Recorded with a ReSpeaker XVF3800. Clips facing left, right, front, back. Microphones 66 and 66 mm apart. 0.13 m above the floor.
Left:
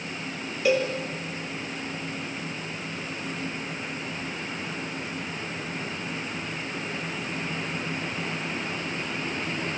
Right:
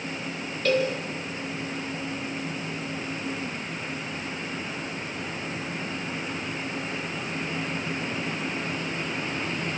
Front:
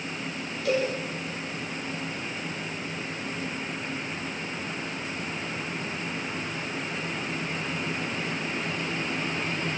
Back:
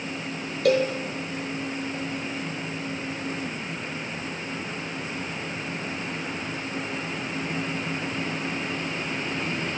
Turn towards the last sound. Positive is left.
turn(degrees=170)